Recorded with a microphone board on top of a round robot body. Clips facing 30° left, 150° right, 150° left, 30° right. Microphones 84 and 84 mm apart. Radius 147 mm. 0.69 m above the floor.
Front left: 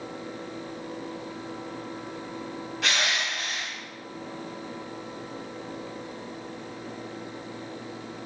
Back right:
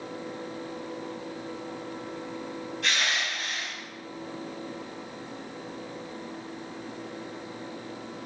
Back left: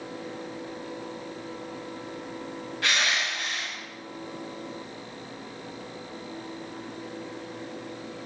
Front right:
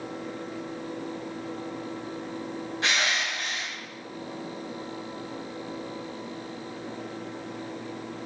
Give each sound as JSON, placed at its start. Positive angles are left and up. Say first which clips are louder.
{"t": 2.8, "sound": "crushing", "louder": "front left 2 dB, even", "azimuth_deg": 40, "distance_m": 3.5}